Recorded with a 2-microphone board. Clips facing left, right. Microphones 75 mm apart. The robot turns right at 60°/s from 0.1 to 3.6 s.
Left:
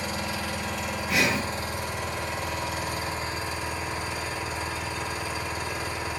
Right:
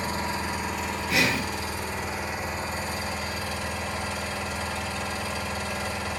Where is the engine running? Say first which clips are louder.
Right 2 dB; 45° right, 3 m; by 6.2 s 165° left, 3 m.